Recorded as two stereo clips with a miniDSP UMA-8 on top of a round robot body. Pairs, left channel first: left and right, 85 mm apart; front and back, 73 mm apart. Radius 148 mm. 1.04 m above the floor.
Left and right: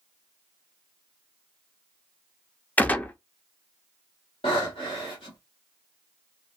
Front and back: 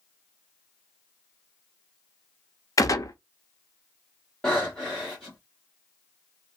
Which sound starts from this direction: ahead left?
A gunshot, at 2.8 s.